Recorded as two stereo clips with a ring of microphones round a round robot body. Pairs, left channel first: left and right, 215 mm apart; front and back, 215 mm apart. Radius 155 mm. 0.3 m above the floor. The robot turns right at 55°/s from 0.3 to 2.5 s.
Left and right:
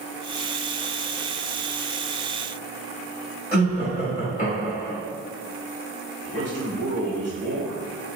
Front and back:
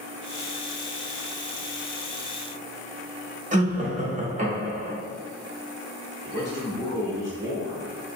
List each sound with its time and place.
3.5 s laughter: 140° left, 1.2 m
6.2 s a man speaking: 145° left, 1.3 m